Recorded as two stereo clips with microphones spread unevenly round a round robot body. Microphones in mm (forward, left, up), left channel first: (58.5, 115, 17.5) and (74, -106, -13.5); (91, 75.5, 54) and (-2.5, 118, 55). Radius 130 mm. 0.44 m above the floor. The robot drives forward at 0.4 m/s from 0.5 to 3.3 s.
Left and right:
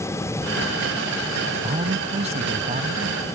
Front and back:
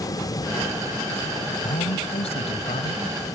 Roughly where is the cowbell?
No cowbell in this recording.